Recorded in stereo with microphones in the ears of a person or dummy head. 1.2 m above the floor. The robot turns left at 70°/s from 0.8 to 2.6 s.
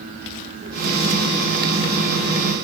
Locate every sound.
Only background noise.